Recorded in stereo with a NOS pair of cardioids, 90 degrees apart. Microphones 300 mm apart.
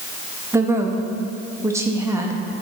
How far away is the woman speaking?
About 1.0 m.